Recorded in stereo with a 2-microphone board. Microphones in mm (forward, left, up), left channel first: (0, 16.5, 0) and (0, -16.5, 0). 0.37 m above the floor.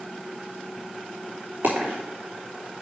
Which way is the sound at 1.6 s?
80° right.